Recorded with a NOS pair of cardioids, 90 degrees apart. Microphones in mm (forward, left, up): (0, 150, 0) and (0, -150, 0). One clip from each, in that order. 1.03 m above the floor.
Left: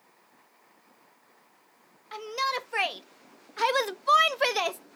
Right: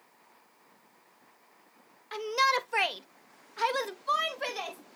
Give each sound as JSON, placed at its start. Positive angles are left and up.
{"t": 2.1, "sound": "a shout", "azimuth_deg": -20, "distance_m": 1.4}